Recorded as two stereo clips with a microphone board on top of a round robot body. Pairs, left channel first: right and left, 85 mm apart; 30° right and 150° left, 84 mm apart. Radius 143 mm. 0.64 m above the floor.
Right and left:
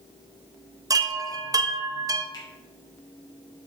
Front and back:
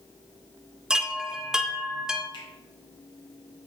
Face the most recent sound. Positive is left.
turn(degrees=-50)